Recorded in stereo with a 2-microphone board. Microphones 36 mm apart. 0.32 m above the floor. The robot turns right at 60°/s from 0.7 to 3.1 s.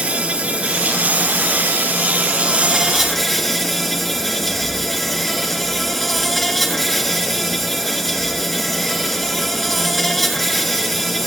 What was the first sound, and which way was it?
An insect, 140° right.